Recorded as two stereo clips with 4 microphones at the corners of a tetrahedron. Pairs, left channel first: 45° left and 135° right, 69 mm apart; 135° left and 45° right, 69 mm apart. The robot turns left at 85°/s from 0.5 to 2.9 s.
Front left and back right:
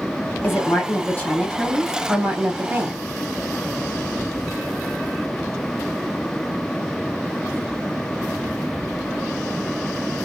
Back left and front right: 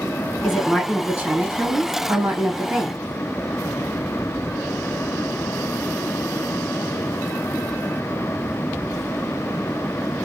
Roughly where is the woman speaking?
Ahead left.